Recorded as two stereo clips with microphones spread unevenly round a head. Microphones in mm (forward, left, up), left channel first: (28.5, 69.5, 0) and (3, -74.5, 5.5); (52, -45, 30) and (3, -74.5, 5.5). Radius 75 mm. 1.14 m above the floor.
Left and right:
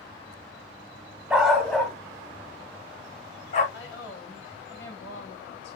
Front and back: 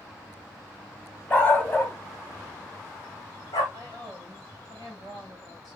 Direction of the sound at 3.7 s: 95° left.